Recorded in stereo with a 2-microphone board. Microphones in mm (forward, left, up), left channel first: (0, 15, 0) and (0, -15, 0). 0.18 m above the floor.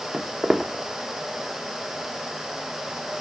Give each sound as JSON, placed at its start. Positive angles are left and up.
{"t": 0.1, "sound": "footsteps", "side_deg": 0, "distance_m": 1.1}